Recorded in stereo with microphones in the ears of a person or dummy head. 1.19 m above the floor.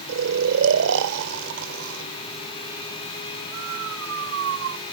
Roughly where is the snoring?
Right.